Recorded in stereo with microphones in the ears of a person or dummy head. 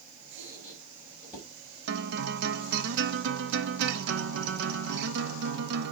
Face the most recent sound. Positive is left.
turn(degrees=-65)  # may be behind; listen again after turning